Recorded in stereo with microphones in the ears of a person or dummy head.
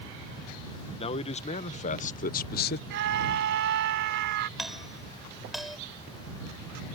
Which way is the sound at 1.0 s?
30° left (ahead or behind).